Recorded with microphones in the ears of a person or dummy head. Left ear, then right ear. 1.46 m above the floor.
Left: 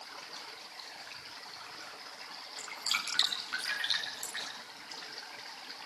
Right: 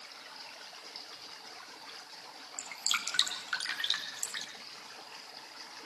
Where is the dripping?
20° right (ahead or behind), 4 m.